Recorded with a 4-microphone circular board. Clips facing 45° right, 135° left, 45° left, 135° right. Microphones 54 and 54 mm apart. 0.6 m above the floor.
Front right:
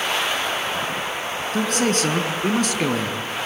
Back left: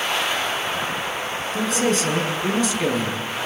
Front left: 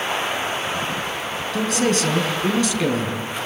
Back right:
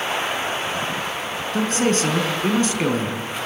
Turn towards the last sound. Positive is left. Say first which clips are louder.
# even, even
turn(degrees=-80)